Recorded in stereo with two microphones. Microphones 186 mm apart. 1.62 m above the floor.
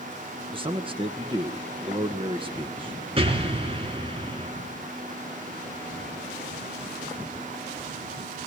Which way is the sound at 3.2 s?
30° right (ahead or behind).